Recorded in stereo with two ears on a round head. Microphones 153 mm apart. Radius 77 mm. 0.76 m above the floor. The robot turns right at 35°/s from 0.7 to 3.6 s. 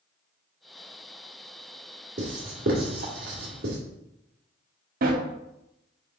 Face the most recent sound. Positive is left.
turn(degrees=-60)  # may be behind; listen again after turning